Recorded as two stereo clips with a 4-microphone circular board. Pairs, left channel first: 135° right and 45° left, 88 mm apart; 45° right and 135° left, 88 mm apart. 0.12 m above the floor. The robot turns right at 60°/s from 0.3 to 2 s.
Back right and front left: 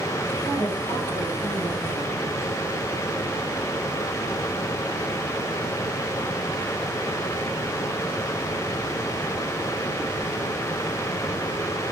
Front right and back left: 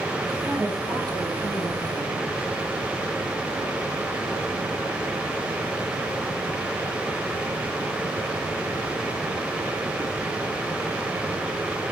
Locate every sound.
0.5 s a woman speaking: 140° right, 8 m; by 2.2 s 45° right, 8 m